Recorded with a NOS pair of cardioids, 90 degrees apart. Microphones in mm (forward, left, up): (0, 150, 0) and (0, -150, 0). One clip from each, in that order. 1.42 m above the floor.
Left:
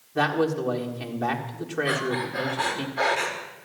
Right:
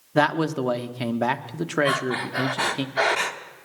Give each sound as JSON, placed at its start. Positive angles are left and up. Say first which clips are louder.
{"t": 0.1, "sound": "a man speaking", "louder": "right 2 dB", "azimuth_deg": -60, "distance_m": 1.3}
{"t": 1.9, "sound": "breathing", "louder": "right 2 dB", "azimuth_deg": -60, "distance_m": 1.5}